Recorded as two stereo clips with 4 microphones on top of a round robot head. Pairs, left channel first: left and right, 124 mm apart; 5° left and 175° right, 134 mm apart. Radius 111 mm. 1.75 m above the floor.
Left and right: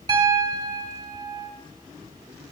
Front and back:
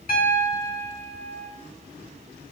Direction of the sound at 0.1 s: 35° right.